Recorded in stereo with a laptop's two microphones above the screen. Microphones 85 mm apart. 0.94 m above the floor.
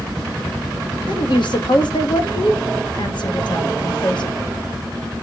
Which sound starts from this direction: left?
A woman speaking, at 1.1 s.